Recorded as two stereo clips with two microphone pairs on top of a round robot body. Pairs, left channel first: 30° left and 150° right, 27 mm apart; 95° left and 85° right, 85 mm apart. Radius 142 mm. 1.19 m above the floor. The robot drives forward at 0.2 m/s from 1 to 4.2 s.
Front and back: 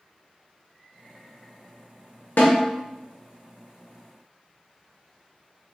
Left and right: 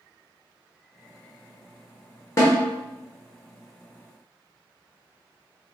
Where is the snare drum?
40° left, 0.7 m; by 2.6 s 45° left, 0.7 m.